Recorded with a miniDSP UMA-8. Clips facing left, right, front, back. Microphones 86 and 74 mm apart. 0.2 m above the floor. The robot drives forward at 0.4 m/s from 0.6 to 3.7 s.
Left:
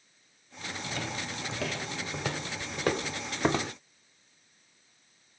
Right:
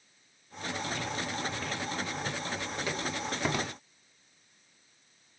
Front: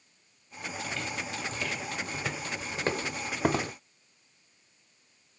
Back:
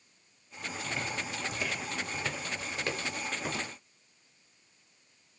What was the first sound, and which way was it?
Footsteps, 115° left.